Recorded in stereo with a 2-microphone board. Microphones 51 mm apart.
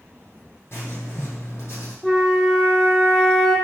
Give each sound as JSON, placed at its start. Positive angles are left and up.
{"t": 0.7, "sound": "writing", "side_deg": 55, "distance_m": 4.5}
{"t": 2.0, "sound": "a flute", "side_deg": 5, "distance_m": 2.5}